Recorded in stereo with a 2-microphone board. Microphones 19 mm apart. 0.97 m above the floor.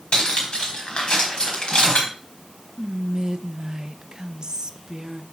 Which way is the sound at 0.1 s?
50° left (ahead or behind).